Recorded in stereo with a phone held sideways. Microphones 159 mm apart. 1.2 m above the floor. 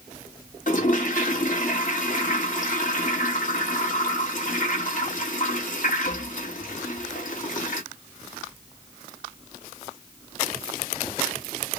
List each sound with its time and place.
0.7 s a toilet flushing: 55° left (ahead or behind), 1.4 m